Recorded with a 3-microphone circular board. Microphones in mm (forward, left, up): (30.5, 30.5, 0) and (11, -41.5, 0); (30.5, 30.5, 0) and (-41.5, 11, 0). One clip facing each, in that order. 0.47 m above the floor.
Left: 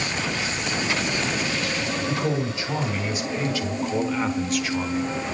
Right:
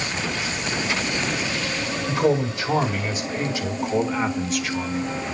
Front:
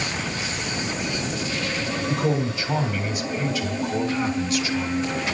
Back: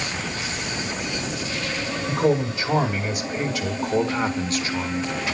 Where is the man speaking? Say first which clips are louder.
Right 8 dB, back 4 dB; 140° right, 2.5 m; by 5.1 s 150° left, 1.6 m.